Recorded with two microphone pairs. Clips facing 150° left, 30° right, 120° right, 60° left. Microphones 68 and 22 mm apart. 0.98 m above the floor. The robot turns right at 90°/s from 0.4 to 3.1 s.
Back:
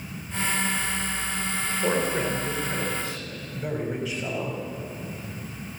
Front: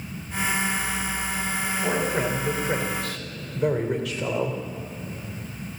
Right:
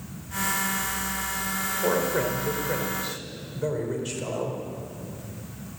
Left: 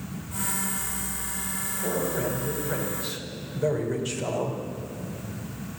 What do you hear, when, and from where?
1.8 s a man speaking: 145° right, 4 m; by 4.6 s 30° right, 4 m